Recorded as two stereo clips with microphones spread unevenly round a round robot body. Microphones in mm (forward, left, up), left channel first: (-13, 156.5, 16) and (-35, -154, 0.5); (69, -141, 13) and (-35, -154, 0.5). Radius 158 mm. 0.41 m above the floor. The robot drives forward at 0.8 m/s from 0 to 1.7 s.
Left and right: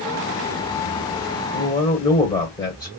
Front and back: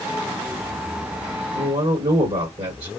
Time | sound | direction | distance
1.5 | a man speaking | 160° left | 1.5 m